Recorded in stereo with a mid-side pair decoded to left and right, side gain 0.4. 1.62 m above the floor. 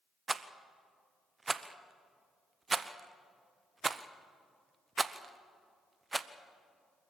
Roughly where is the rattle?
Ahead right.